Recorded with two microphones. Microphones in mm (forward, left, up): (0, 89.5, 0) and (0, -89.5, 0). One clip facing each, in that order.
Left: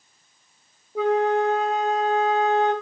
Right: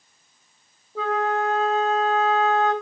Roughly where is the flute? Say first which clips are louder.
Left 4 dB; centre.